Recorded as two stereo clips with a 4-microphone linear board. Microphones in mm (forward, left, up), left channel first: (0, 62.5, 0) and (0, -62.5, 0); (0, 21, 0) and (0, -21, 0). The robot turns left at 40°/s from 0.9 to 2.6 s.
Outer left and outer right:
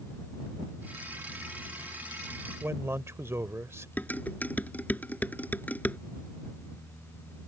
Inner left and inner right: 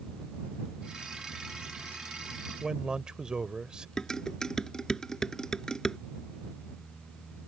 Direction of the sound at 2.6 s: 20° right (ahead or behind).